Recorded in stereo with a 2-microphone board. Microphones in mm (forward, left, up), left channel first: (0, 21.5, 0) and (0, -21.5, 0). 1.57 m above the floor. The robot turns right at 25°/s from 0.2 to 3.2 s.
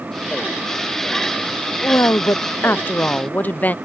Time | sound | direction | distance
1.8 | a woman speaking | 105° left | ?